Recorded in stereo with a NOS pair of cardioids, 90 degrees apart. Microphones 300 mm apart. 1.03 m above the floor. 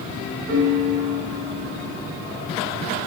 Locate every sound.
0.5 s a piano: 65° right, 2.5 m